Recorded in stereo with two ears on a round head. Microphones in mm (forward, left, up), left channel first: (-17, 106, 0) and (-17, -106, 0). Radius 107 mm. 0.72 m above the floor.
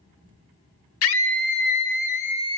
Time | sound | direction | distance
1.0 | a scream | 65° left (ahead or behind) | 1.6 m